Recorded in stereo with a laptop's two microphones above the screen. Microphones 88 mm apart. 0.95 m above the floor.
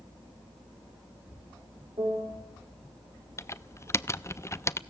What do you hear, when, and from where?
2.0 s a piano: 60° right (ahead or behind), 3 m
3.4 s typing on a keyboard: 30° left (ahead or behind), 0.6 m